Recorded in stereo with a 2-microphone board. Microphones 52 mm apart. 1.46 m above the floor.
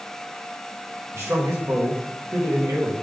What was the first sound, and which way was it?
A man speaking, 60° right (ahead or behind).